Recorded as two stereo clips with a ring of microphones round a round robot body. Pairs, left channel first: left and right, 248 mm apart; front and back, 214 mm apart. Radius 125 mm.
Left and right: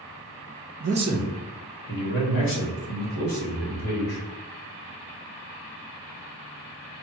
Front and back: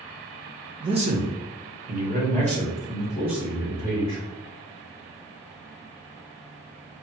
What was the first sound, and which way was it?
A man speaking, 115° right.